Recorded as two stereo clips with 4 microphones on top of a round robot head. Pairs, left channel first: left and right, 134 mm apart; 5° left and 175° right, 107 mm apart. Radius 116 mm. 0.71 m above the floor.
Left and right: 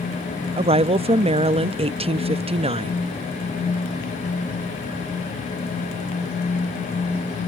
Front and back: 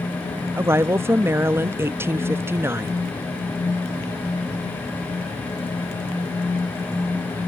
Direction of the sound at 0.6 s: 110° right.